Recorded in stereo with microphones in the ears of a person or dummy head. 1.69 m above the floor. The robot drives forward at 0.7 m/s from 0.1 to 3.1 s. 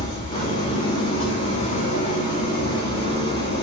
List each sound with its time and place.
0.0 s an engine running: 45° left (ahead or behind), 3.5 m; by 3.6 s 30° left (ahead or behind), 5 m